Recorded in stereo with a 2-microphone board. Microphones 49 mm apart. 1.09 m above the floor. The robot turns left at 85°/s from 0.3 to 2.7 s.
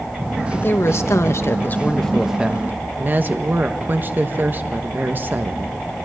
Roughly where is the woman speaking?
Behind left.